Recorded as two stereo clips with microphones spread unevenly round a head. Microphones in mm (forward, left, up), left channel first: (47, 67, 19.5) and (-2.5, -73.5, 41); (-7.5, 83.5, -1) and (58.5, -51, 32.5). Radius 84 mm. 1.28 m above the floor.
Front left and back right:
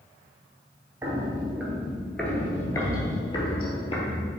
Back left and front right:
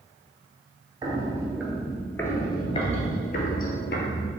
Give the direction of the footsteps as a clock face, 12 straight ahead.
2 o'clock.